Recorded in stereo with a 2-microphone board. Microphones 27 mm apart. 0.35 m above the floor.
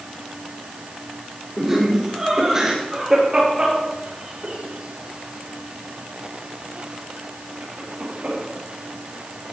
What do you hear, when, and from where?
1.6 s laughter: 10° right (ahead or behind), 4.5 m; by 8.4 s 80° right, 6.5 m